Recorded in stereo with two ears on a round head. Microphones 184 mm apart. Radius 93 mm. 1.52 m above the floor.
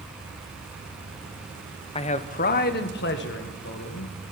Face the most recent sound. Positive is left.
turn(degrees=70)  # may be behind; listen again after turning